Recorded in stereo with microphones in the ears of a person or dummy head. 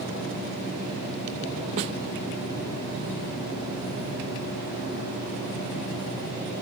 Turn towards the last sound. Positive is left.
turn(degrees=-30)  # may be behind; listen again after turning